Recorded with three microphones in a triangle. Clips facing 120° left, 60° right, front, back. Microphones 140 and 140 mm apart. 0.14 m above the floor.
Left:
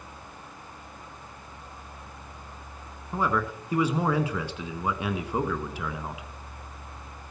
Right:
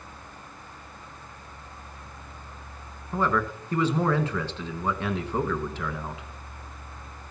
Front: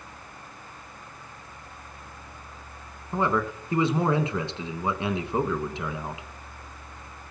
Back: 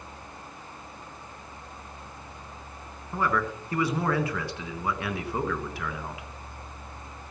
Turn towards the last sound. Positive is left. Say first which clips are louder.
# right 1 dB, front 2 dB
turn(degrees=50)